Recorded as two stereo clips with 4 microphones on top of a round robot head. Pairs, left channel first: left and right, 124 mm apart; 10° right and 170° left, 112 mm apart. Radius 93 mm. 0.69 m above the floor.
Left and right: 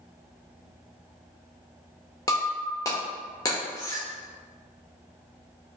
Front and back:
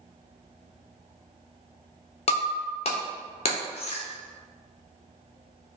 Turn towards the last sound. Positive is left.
turn(degrees=20)